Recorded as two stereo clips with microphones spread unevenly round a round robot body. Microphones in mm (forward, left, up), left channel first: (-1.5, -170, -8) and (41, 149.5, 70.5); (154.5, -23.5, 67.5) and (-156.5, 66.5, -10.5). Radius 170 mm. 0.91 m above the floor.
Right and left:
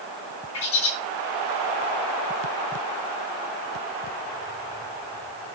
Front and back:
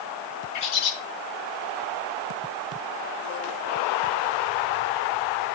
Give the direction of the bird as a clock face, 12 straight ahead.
2 o'clock.